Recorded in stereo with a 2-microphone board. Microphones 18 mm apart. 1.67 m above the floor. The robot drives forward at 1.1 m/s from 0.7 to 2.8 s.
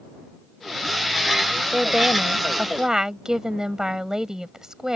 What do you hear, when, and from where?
1.7 s a woman speaking: 35° right (ahead or behind); by 5.0 s 30° right (ahead or behind)